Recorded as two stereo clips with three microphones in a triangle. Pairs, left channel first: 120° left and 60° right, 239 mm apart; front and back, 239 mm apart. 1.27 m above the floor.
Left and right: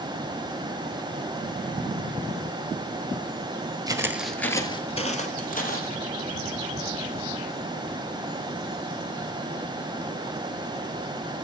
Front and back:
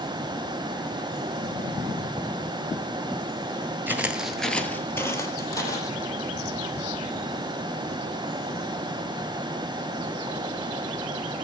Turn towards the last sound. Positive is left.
turn(degrees=75)